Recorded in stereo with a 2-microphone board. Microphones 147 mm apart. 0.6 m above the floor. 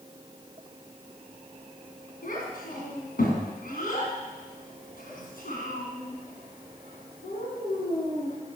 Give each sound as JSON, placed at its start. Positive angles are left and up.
{"t": 2.2, "sound": "a child speaking", "side_deg": 75, "distance_m": 4.0}